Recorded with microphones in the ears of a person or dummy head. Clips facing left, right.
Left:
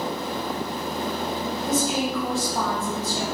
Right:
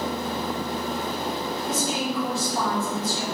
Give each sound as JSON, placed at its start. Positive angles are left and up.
{"t": 1.7, "sound": "a woman speaking", "side_deg": 45, "distance_m": 1.5}